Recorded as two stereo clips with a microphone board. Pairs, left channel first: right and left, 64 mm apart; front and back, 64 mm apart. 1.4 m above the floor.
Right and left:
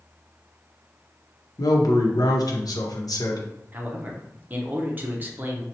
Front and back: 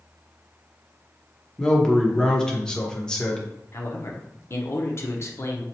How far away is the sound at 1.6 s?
About 0.8 m.